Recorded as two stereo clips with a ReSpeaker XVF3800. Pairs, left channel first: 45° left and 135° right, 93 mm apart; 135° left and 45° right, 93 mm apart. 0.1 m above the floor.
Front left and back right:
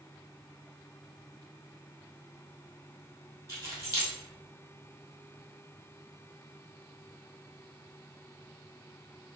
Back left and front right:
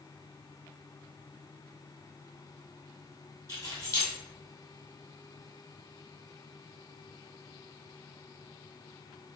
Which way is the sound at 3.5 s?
170° left.